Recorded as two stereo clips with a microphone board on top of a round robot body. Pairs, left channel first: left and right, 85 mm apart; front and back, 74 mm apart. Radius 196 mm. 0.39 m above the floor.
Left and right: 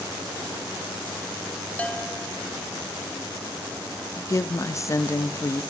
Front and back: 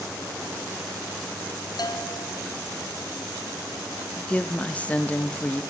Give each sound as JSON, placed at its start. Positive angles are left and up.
{"t": 1.8, "sound": "a bell", "azimuth_deg": 15, "distance_m": 1.9}
{"t": 4.2, "sound": "a woman speaking", "azimuth_deg": 60, "distance_m": 1.0}